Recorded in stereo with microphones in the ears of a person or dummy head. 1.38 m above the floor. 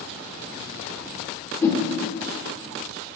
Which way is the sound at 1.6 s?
15° left (ahead or behind).